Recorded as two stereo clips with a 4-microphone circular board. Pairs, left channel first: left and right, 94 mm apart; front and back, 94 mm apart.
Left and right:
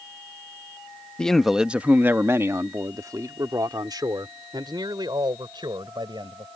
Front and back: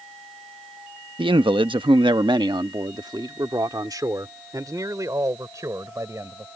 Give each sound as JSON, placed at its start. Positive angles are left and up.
{"t": 1.2, "sound": "a man speaking", "azimuth_deg": 170}